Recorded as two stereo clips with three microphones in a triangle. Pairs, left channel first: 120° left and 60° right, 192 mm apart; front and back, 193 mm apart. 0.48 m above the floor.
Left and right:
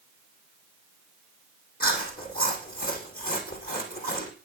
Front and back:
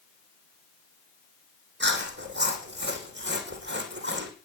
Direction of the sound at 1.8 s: 160° left.